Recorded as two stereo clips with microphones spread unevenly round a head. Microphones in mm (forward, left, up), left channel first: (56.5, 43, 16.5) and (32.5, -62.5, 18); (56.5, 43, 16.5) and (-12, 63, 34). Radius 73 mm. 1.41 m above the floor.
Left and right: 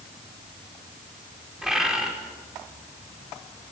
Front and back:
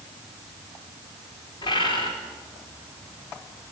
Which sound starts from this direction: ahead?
A bird, at 1.6 s.